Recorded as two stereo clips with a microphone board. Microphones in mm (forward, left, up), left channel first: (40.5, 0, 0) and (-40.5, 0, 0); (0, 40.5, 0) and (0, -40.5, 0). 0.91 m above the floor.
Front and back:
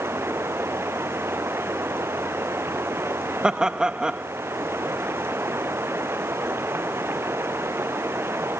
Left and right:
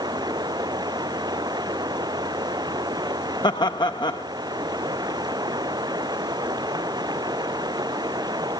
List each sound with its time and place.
0.0 s running water: 120° right
3.4 s laughter: 100° left